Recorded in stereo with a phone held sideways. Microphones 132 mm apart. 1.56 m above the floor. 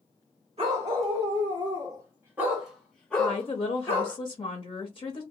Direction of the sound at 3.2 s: 40° left (ahead or behind).